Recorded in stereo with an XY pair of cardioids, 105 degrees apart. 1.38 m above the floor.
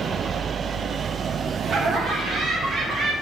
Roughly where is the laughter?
Ahead right.